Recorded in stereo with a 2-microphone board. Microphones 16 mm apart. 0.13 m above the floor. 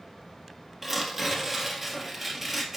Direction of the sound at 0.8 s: 20° right (ahead or behind).